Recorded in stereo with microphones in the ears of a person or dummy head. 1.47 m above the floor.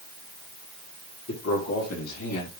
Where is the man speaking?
70° left (ahead or behind), 3 m; by 2.5 s 85° left, 3 m.